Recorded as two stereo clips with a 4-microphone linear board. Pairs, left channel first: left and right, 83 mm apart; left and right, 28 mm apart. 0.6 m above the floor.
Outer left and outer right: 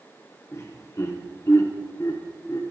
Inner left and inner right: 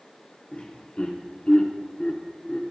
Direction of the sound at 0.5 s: 40° left (ahead or behind).